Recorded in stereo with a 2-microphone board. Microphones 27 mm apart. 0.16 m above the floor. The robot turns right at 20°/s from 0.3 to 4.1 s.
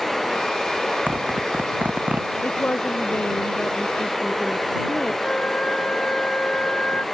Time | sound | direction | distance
1.1 | a zipper | 65° right (ahead or behind) | ?
2.4 | a woman speaking | 115° left | ?
5.2 | a flute | 40° left (ahead or behind) | ?